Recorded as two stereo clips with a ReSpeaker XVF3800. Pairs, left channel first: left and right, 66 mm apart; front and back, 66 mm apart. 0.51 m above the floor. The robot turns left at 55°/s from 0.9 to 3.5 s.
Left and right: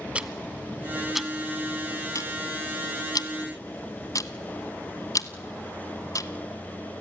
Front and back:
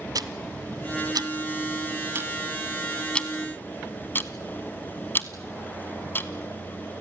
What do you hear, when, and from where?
0.1 s ticking: 160° right, 1.1 m; by 6.3 s 55° left, 1.1 m